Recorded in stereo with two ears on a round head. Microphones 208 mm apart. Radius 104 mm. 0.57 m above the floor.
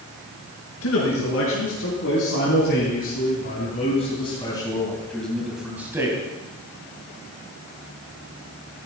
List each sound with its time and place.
0.8 s a man speaking: 60° left (ahead or behind), 5 m; by 6.2 s 15° right (ahead or behind), 3 m